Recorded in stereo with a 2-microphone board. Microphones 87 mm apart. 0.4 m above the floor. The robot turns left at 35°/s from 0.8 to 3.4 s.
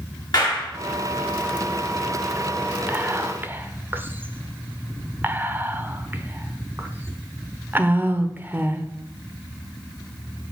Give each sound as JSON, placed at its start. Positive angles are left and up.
{"t": 0.3, "sound": "a clap", "side_deg": 50, "distance_m": 3.5}
{"t": 2.9, "sound": "whispering", "side_deg": -25, "distance_m": 0.8}